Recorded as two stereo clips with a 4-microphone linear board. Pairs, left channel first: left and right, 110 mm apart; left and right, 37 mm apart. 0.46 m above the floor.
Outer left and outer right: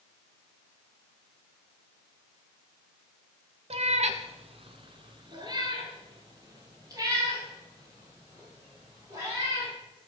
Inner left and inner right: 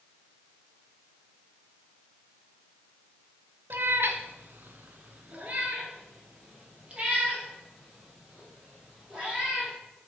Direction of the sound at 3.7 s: 70° right (ahead or behind).